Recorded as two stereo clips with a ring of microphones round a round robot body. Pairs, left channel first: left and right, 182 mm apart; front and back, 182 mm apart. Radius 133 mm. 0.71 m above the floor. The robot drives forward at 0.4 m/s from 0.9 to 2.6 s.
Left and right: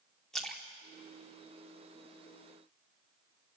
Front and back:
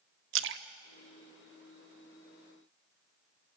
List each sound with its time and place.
0.3 s a splash: straight behind, 0.8 m